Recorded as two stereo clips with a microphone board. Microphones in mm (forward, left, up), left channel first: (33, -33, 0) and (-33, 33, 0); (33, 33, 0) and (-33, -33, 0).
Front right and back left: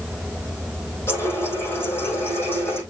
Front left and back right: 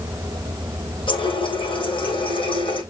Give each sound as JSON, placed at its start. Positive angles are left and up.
{"t": 1.1, "sound": "a running tap", "azimuth_deg": 20, "distance_m": 5.0}